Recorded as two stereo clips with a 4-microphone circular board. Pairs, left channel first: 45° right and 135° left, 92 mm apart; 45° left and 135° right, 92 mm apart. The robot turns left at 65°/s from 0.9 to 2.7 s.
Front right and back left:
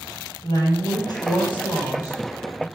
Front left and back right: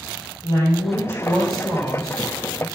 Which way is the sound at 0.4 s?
Straight ahead.